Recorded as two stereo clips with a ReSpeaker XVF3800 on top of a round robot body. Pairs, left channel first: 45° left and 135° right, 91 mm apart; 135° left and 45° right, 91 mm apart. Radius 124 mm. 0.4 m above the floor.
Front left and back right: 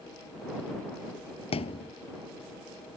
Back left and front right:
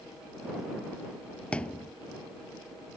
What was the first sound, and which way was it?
A thud, 55° left.